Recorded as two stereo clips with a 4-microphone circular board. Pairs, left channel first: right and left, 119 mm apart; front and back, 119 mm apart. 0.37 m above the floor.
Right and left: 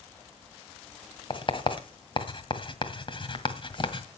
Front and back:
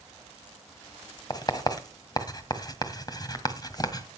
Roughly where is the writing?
Ahead right.